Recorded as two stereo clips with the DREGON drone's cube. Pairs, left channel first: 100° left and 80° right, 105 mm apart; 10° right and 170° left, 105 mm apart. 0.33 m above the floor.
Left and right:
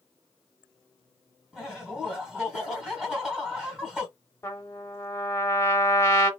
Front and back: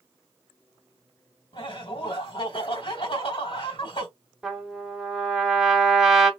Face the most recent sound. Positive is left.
turn(degrees=90)